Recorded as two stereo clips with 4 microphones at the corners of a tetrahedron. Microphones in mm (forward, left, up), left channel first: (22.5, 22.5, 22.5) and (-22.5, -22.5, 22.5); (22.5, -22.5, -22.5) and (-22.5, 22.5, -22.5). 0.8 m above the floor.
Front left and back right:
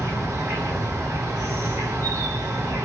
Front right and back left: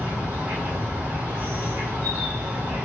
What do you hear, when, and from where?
0.0 s an insect: 170° right, 1.5 m